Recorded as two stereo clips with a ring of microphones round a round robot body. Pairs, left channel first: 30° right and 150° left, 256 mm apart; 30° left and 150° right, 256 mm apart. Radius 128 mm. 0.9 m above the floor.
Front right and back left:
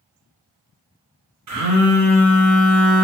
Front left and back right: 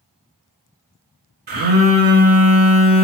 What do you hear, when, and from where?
1.5 s a phone buzzing: 160° left, 1.5 m